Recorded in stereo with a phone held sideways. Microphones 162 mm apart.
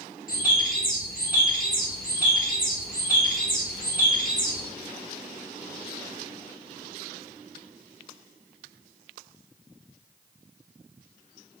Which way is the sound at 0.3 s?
60° left (ahead or behind).